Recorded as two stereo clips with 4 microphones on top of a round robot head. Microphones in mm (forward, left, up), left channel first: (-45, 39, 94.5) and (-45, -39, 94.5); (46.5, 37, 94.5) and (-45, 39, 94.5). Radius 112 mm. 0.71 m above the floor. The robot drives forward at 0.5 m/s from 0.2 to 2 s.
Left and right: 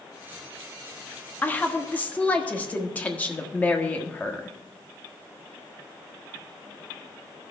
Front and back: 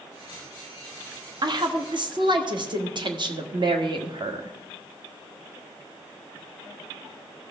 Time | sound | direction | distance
1.4 | a woman speaking | 150° left | 1.3 m